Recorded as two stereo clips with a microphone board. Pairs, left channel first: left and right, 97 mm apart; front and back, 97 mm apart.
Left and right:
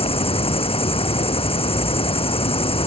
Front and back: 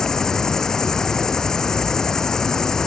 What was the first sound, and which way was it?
An insect, 85° left.